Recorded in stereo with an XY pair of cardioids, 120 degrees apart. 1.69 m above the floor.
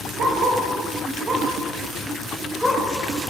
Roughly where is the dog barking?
Right.